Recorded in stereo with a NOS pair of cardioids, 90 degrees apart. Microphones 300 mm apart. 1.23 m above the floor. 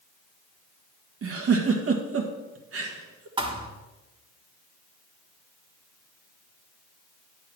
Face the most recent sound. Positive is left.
turn(degrees=-15)